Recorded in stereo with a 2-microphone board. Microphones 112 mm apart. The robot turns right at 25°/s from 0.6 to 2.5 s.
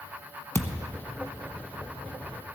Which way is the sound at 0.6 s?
25° left (ahead or behind).